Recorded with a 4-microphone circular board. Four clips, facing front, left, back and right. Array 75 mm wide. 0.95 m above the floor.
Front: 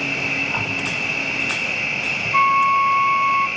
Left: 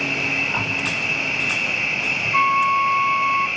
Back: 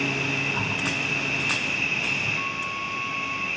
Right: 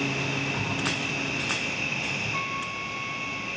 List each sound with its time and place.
0.0 s an insect: 45° left, 9 m
2.3 s a flute: 35° left, 0.9 m